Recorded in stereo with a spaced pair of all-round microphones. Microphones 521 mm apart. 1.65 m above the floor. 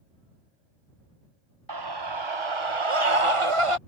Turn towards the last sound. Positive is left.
turn(degrees=-75)  # may be behind; listen again after turning